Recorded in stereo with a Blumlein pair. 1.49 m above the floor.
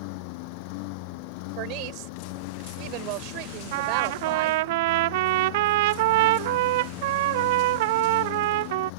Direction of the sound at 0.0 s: 45° left.